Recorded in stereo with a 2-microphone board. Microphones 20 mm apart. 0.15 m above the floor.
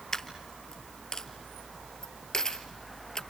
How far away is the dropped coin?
About 1.4 m.